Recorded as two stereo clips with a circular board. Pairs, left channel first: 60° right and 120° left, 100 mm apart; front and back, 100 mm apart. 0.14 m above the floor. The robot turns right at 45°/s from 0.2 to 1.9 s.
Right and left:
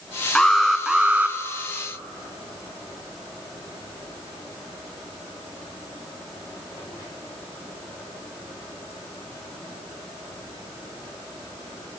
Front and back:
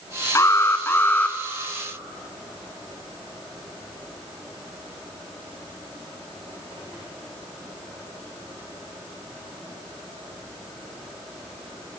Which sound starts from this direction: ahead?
An alarm, at 0.3 s.